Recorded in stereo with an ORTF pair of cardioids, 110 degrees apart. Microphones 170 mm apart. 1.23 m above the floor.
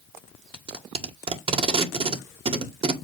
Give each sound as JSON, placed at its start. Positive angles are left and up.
{"t": 0.5, "sound": "tape being pulled", "azimuth_deg": -30, "distance_m": 2.0}